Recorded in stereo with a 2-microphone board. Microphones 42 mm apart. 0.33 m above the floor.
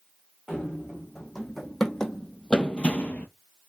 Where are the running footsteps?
Centre (ahead or behind), 1.6 m; by 3.3 s 55° left (ahead or behind), 0.5 m.